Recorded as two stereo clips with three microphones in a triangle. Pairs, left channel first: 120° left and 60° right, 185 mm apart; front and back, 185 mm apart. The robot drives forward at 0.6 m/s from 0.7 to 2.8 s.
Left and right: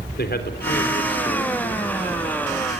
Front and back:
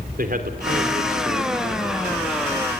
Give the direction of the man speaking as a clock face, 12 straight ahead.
7 o'clock.